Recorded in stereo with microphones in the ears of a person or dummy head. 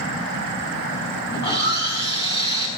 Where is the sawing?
25° left (ahead or behind), 5 m.